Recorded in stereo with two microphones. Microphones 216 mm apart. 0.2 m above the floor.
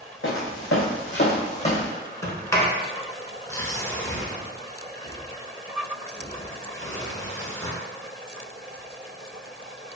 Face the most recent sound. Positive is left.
turn(degrees=15)  # may be behind; listen again after turning